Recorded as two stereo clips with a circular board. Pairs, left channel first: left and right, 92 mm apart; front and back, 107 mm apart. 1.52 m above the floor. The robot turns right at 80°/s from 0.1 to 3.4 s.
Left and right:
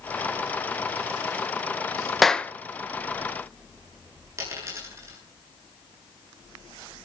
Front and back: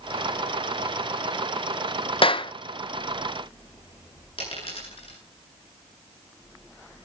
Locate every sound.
2.2 s a clap: straight ahead, 0.8 m; by 2.5 s 25° left, 0.8 m
4.4 s a dropped coin: 30° right, 9 m